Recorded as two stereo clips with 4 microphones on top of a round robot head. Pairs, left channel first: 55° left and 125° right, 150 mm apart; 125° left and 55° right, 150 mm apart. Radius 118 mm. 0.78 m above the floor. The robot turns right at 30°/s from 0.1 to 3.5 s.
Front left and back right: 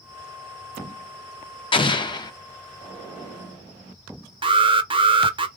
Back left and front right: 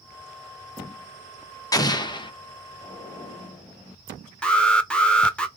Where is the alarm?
155° right, 0.6 m.